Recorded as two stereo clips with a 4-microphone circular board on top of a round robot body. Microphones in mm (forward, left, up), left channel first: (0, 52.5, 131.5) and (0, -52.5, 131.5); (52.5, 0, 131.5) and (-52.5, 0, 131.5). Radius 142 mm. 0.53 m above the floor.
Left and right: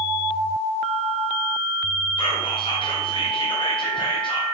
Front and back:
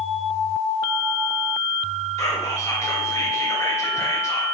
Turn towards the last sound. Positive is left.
turn(degrees=60)